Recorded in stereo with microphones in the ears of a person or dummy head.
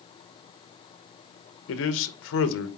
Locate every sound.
1.7 s a man speaking: 75° left (ahead or behind), 1.2 m